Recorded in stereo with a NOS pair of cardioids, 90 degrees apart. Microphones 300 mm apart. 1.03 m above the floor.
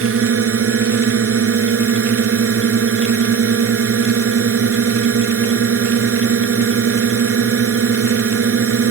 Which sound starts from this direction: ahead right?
A drone, at 0.0 s.